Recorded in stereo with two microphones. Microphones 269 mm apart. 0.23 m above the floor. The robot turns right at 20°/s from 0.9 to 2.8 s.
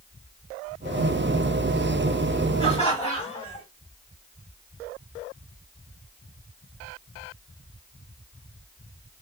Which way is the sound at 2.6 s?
20° left (ahead or behind).